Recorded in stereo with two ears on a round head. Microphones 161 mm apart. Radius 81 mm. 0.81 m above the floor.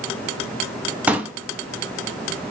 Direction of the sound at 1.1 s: 10° right (ahead or behind).